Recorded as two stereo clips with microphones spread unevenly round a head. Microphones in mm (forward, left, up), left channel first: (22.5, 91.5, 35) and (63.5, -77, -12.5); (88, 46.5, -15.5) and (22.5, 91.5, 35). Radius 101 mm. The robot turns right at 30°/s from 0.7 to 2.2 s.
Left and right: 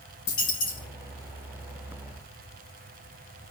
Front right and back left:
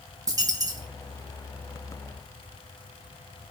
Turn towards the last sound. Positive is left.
turn(degrees=170)